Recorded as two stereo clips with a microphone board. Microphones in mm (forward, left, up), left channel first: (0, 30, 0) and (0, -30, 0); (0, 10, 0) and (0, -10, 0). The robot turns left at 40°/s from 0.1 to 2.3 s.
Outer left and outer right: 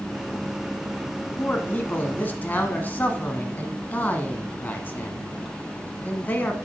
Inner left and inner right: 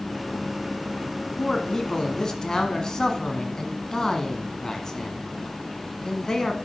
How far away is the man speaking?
About 1.1 m.